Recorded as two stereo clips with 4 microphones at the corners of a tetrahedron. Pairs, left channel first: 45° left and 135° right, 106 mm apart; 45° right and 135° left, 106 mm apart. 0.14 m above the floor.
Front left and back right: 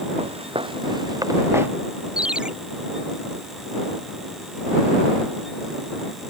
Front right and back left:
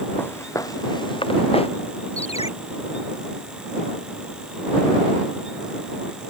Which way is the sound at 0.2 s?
115° right.